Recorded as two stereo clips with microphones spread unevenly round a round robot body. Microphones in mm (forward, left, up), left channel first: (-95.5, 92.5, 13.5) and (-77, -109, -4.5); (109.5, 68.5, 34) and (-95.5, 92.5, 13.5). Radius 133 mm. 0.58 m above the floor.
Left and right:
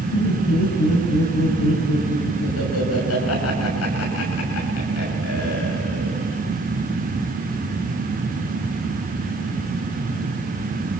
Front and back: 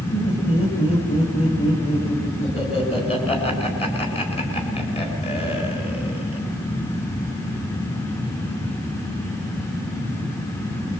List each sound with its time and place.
0.1 s laughter: 55° left, 6.5 m